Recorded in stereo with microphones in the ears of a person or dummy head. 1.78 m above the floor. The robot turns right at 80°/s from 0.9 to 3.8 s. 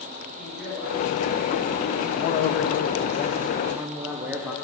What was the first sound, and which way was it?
A woman speaking, 5° right.